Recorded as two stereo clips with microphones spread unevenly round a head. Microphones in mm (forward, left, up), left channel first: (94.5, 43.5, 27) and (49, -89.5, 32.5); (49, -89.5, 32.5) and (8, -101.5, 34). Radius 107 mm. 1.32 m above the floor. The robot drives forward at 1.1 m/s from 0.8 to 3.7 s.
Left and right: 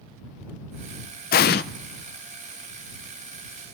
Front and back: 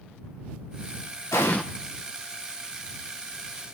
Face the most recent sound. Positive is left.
turn(degrees=170)